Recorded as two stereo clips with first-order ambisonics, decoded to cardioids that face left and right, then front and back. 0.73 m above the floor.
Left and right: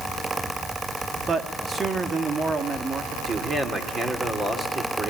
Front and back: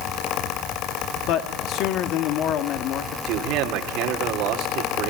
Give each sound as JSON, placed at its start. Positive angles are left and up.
{"t": 1.3, "sound": "a man speaking", "azimuth_deg": -20, "distance_m": 1.8}
{"t": 3.3, "sound": "a man speaking", "azimuth_deg": -160, "distance_m": 2.5}